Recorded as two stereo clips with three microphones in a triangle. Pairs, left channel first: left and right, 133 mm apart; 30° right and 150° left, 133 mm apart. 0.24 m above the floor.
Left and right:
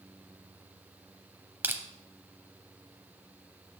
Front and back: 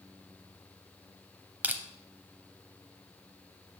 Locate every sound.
1.6 s crushing: 145° right, 0.6 m